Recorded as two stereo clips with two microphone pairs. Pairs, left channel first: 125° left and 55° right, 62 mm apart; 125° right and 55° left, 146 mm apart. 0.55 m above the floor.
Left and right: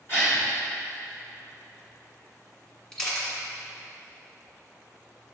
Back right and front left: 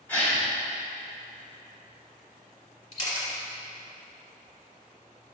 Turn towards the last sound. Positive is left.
turn(degrees=-165)